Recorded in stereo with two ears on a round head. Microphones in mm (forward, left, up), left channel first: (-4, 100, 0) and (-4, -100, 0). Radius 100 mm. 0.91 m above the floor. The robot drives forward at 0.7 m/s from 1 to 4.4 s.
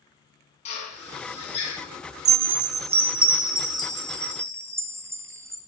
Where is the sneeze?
I don't hear a sneeze.